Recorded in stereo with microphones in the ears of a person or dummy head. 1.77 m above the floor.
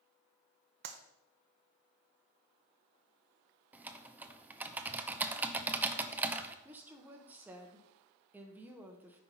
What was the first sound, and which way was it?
A clap, 55° right (ahead or behind).